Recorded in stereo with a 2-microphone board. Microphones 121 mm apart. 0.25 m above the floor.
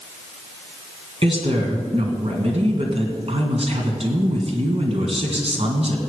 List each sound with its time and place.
1.2 s a woman speaking: 55° right (ahead or behind), 2 m